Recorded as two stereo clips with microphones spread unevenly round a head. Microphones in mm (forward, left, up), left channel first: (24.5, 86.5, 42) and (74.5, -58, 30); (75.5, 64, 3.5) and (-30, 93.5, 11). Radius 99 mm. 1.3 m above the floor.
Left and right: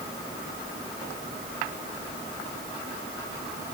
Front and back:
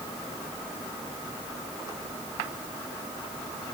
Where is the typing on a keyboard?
I don't hear typing on a keyboard.